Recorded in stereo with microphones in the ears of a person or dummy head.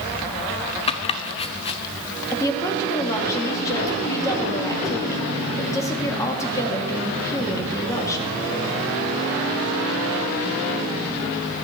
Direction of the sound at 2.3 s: 15° left (ahead or behind).